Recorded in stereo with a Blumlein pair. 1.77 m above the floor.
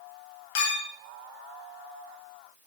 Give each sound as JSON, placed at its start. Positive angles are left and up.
{"t": 0.6, "sound": "a clink", "azimuth_deg": 50, "distance_m": 2.5}